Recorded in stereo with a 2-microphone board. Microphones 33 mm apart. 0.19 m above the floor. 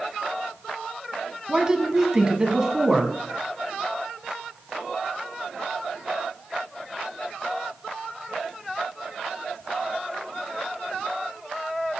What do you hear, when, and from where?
1.5 s a woman speaking: 20° right (ahead or behind), 1.5 m